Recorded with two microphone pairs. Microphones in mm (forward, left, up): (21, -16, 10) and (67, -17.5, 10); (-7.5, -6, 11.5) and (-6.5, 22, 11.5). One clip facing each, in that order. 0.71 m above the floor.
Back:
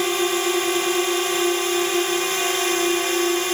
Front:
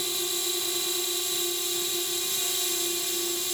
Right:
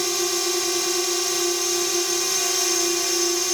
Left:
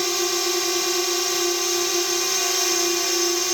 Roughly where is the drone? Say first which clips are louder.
Back 12 dB, left 1 dB; behind.